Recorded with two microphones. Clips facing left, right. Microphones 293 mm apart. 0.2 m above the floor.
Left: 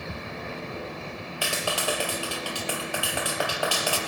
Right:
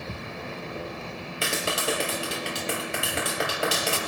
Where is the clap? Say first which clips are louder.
Right 1 dB; 25° right (ahead or behind), 3.5 m.